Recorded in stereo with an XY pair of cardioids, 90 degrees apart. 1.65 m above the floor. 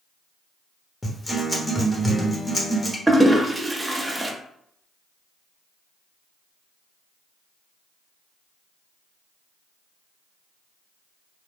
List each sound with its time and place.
1.0 s a guitar: 20° left, 0.8 m
3.1 s a toilet flushing: 15° right, 0.7 m